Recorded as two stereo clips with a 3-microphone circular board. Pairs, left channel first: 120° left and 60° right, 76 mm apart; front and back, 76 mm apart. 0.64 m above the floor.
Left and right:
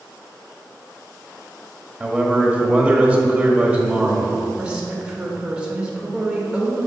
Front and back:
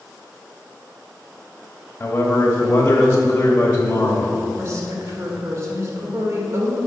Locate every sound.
2.0 s a man speaking: 5° left, 1.0 m
4.6 s a woman speaking: 135° right, 1.5 m